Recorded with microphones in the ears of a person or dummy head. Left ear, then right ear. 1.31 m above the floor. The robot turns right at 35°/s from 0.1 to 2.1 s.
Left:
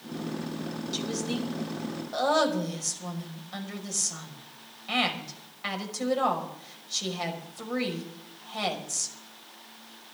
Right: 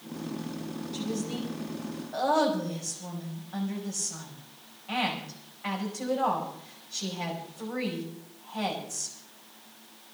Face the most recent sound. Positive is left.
turn(degrees=95)